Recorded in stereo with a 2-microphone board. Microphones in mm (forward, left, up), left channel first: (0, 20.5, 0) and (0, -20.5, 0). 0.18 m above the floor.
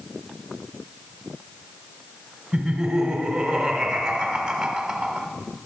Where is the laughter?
15° right (ahead or behind), 1.0 m.